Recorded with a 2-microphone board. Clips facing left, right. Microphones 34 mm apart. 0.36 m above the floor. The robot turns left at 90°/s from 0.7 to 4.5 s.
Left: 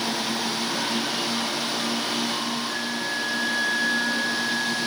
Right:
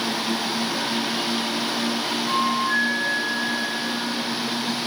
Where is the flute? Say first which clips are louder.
Right 6 dB; 75° right; by 4.9 s 80° left.